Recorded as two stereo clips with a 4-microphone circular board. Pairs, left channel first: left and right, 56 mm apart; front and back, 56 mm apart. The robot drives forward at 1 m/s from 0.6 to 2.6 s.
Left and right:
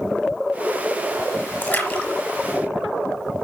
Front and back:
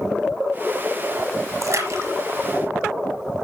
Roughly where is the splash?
Behind left.